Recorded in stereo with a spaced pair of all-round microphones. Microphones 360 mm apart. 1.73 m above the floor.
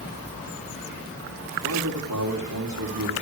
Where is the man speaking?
65° right (ahead or behind), 4 m.